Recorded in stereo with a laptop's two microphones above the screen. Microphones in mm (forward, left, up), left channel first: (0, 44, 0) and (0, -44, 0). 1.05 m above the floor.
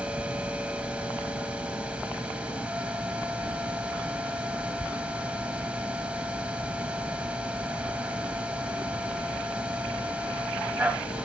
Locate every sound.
0.0 s a machine running: 15° right (ahead or behind), 1.2 m